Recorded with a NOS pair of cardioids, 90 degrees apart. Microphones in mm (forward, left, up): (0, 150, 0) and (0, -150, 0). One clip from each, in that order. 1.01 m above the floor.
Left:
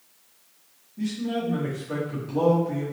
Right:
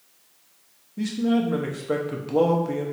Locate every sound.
1.0 s a man speaking: 50° right, 1.1 m